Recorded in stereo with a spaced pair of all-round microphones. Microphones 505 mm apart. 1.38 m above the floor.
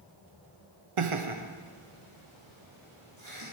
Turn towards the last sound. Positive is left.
turn(degrees=-65)  # may be behind; listen again after turning